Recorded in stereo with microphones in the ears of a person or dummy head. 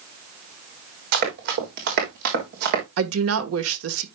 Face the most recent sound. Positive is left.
turn(degrees=-80)